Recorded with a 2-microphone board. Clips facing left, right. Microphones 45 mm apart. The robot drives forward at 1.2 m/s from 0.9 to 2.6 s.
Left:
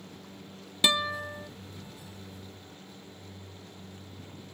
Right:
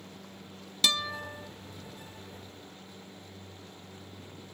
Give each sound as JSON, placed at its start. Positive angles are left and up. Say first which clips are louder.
{"t": 0.8, "sound": "a guitar", "louder": "left 3 dB", "side_deg": 20}